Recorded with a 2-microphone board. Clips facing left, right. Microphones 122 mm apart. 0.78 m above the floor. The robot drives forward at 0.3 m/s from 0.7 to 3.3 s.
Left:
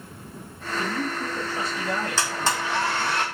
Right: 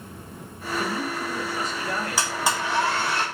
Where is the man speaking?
35° left (ahead or behind), 0.8 m; by 3.2 s 20° left (ahead or behind), 1.4 m.